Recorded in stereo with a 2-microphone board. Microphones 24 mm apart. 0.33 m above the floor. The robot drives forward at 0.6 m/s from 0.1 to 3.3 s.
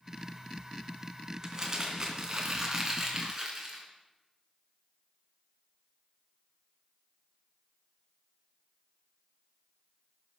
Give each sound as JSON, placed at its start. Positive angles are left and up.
{"t": 1.4, "sound": "crumpling", "side_deg": -30, "distance_m": 2.5}